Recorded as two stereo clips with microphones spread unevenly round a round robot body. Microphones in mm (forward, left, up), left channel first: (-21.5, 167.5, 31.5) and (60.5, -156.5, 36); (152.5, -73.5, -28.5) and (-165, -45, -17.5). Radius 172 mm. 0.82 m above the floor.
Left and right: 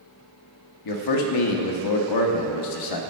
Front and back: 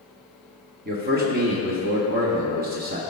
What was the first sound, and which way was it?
A man speaking, 110° left.